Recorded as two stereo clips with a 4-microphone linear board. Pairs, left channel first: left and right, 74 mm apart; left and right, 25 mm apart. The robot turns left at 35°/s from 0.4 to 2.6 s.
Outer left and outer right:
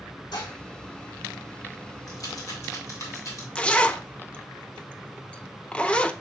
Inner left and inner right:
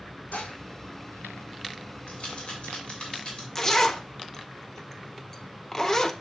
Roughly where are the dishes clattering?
Left.